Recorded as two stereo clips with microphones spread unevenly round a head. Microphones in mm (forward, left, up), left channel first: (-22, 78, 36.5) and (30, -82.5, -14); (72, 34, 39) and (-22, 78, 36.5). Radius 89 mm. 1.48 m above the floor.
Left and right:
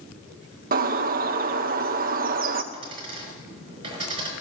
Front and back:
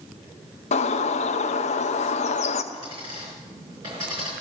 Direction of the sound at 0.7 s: 40° right.